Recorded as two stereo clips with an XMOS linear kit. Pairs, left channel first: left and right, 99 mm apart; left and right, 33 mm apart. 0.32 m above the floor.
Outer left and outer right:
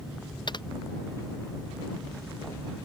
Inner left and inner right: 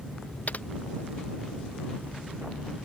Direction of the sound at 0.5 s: 45° left (ahead or behind).